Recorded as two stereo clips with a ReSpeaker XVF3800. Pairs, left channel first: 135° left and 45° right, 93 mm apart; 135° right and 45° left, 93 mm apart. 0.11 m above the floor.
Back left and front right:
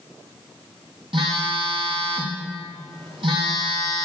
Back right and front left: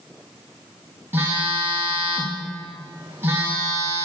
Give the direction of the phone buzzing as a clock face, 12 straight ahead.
1 o'clock.